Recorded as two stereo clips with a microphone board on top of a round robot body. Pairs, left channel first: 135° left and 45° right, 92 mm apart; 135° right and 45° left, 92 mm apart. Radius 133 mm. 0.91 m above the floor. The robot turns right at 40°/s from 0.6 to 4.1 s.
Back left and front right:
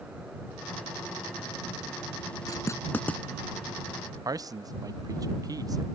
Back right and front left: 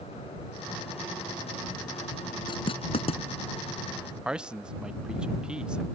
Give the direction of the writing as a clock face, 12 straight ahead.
6 o'clock.